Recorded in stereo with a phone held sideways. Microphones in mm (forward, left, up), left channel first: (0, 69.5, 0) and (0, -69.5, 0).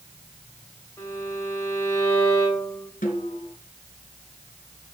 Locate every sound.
1.0 s a violin: 20° left (ahead or behind), 4.5 m
3.0 s a snare drum: 85° left, 3.5 m